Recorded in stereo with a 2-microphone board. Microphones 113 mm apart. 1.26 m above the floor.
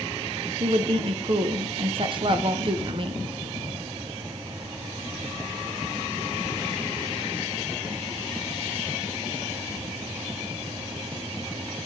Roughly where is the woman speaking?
Right.